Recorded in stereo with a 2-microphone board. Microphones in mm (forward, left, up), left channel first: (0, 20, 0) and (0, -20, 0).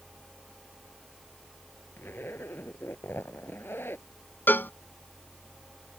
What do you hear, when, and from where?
2.0 s a zipper: 70° left (ahead or behind)
4.5 s a cowbell: 60° left (ahead or behind)